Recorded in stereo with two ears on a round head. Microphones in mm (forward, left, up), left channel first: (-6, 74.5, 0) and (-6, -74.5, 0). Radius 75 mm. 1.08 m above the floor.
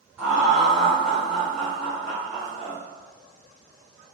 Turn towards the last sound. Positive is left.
turn(degrees=5)  # may be behind; listen again after turning